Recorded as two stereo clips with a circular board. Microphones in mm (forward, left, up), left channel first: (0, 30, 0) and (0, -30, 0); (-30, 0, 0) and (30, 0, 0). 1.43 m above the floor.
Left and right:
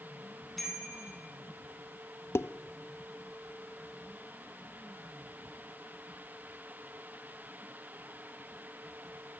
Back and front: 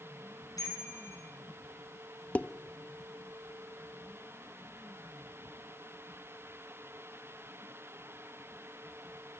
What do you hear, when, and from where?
0.6 s a bicycle bell: straight behind, 9.5 m
2.4 s dishes clattering: 120° left, 0.7 m